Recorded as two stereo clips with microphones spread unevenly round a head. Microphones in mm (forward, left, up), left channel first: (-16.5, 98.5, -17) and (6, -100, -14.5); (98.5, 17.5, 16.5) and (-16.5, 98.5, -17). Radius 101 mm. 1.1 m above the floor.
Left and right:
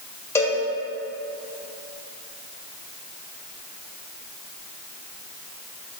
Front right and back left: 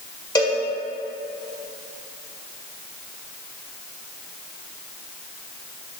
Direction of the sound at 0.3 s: 20° left.